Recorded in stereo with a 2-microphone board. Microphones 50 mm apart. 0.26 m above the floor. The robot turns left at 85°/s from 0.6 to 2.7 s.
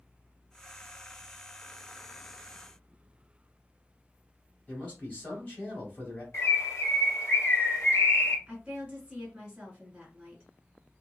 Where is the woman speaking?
10° right (ahead or behind), 1.4 m.